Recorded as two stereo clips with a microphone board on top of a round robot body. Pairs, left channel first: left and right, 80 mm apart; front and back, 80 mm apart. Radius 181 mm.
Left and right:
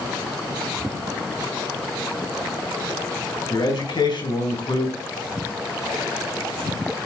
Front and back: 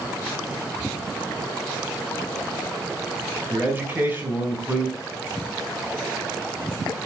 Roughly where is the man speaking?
Behind left.